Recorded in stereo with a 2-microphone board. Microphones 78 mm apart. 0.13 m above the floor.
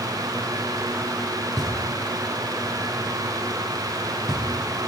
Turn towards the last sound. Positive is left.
turn(degrees=-5)  # may be behind; listen again after turning